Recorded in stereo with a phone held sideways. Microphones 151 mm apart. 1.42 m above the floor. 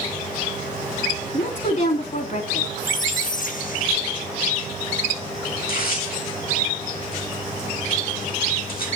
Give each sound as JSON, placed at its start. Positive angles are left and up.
{"t": 1.3, "sound": "a woman speaking", "side_deg": 60, "distance_m": 3.0}
{"t": 2.8, "sound": "a squeak", "side_deg": 65, "distance_m": 1.2}
{"t": 5.6, "sound": "tearing paper", "side_deg": 80, "distance_m": 5.0}